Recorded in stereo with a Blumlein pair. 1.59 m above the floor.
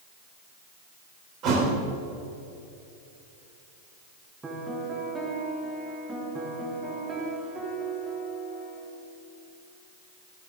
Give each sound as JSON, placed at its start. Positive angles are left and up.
{"t": 1.4, "sound": "a thud", "azimuth_deg": -35, "distance_m": 3.0}
{"t": 4.4, "sound": "a piano", "azimuth_deg": -15, "distance_m": 2.5}